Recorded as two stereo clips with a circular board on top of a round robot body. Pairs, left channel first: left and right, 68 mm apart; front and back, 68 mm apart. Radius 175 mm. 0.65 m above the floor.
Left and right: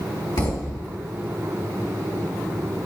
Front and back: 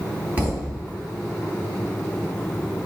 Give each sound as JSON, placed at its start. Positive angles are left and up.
{"t": 0.4, "sound": "a thud", "azimuth_deg": 110, "distance_m": 2.5}